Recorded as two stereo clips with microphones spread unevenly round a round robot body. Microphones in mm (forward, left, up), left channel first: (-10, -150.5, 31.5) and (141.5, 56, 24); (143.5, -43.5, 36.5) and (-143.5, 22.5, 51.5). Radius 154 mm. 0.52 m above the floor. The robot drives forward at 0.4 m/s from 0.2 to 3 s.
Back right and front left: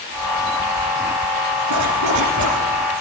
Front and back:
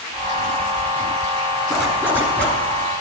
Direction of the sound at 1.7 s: 80° left.